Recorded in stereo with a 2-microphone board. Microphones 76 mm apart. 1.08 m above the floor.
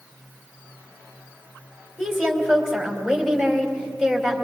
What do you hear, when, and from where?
2.0 s a woman speaking: 5° left (ahead or behind), 3.5 m